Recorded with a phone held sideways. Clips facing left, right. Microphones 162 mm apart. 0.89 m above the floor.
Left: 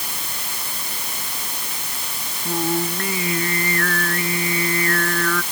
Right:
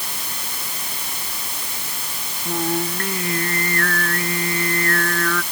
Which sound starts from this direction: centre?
Singing, at 2.5 s.